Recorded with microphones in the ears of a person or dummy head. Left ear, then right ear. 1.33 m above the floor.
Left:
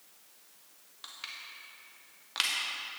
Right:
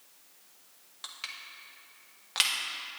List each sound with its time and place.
1.0 s crushing: 10° right (ahead or behind), 0.6 m